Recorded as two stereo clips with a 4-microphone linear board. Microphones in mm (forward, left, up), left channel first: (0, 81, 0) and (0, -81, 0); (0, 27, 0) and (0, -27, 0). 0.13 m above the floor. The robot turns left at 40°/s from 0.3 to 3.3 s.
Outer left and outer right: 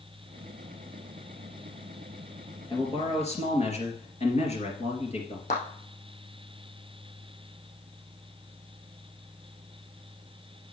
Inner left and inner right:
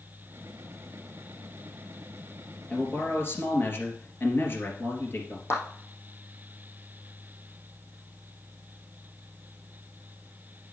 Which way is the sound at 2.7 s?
25° left (ahead or behind).